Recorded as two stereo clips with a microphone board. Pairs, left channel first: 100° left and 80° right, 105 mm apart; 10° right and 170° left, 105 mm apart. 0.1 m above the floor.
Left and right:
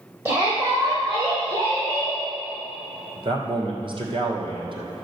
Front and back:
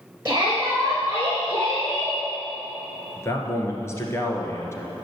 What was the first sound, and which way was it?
A shout, 135° right.